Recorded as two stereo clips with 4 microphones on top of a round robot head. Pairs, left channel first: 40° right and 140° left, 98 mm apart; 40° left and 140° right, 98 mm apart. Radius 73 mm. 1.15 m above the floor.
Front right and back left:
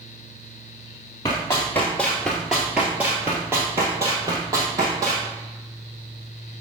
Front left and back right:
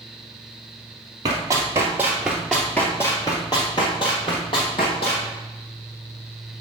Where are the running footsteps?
100° right, 1.3 m; by 5.3 s 80° left, 2 m.